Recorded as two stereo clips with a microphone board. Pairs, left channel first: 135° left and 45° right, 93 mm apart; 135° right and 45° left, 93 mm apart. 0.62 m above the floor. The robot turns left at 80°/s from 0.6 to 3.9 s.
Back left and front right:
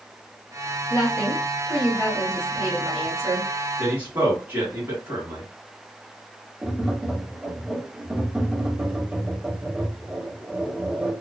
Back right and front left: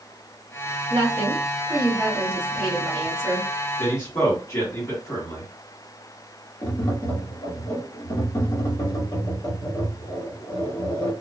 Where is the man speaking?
90° right, 1.5 m; by 5.5 s 100° right, 1.5 m.